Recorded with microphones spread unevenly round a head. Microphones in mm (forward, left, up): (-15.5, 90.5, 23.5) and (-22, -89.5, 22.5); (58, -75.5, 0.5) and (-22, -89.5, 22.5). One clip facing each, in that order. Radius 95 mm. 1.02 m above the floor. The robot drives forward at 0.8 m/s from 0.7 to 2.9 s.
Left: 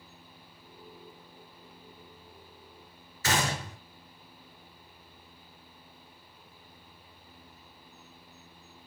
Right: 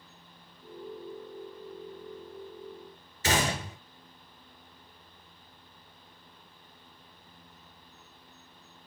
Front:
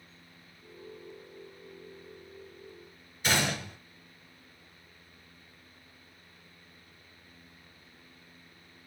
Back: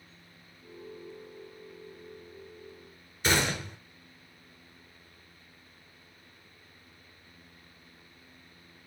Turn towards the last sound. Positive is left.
turn(degrees=-165)